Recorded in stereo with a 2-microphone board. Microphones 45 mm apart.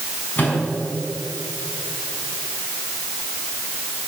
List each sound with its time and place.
0.4 s a microwave: 40° left (ahead or behind), 5 m